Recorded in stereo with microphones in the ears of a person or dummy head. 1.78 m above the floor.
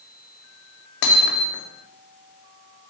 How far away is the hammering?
About 3 m.